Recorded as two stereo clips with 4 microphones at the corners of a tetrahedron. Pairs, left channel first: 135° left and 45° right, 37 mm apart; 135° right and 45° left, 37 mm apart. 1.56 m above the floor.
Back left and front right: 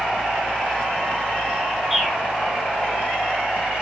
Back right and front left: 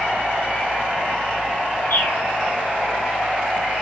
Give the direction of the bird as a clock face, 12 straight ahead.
4 o'clock.